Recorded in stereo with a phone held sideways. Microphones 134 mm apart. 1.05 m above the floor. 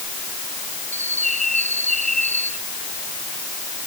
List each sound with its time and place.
0.9 s a bird: 65° right (ahead or behind)